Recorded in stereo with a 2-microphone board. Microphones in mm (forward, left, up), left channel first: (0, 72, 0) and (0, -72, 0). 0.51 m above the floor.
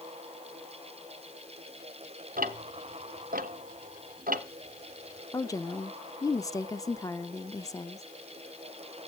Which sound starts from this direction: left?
A woman speaking, at 5.3 s.